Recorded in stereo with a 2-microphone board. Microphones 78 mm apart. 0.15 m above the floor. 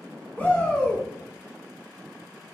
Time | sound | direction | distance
0.4 | a shout | 20° left (ahead or behind) | 1.0 m